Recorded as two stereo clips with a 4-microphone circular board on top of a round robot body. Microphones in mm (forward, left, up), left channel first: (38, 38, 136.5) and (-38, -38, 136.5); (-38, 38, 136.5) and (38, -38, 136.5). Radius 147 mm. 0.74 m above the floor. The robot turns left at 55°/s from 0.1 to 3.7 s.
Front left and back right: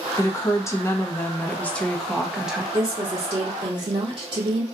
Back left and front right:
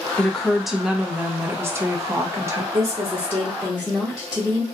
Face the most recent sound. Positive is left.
turn(degrees=-130)